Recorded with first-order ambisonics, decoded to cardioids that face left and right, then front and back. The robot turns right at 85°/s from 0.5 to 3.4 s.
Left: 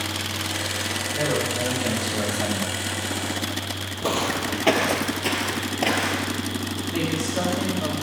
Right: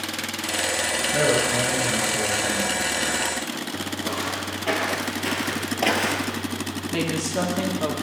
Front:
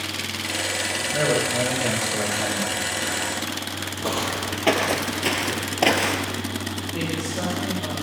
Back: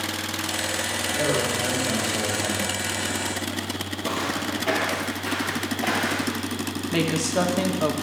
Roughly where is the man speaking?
Ahead right.